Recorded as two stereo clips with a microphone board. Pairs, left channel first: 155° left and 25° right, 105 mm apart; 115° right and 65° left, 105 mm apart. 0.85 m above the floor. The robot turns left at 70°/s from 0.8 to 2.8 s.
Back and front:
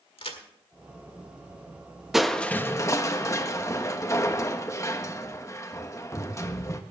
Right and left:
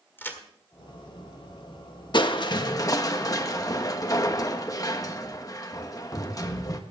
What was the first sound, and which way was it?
A crack, straight behind.